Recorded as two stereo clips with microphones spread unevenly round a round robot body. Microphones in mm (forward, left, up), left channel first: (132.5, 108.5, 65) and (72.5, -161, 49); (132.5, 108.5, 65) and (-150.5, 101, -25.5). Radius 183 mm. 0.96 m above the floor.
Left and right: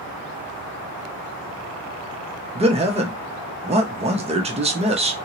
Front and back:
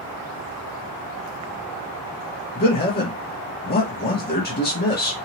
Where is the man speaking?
65° right, 0.7 m.